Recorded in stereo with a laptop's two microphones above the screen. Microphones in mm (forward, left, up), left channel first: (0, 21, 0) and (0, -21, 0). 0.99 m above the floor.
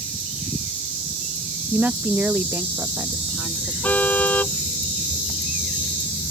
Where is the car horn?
40° left (ahead or behind).